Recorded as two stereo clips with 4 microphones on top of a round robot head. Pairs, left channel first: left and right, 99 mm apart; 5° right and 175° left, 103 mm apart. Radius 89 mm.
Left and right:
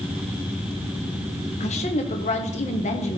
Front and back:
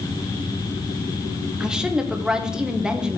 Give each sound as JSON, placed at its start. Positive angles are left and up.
{"t": 1.6, "sound": "a woman speaking", "azimuth_deg": 90, "distance_m": 1.2}